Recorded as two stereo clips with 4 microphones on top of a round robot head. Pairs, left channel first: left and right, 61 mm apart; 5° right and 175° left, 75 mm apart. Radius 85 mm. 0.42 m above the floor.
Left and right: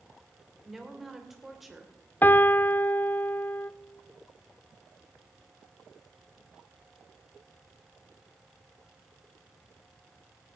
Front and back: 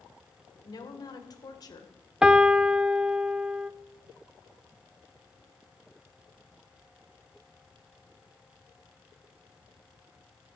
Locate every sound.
0.6 s a woman speaking: 5° right, 2.5 m
2.2 s a piano: 105° left, 0.6 m